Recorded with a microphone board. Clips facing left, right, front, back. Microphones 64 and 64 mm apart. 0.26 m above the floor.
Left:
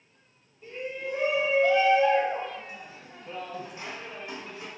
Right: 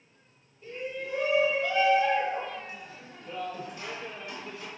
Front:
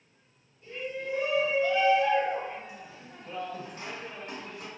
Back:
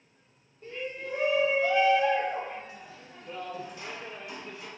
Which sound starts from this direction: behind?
A shout, at 0.6 s.